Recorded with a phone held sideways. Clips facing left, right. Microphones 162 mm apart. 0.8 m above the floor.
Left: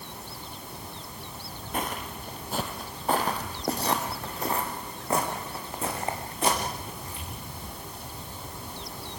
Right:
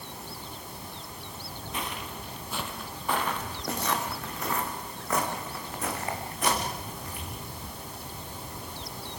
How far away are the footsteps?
About 1.2 m.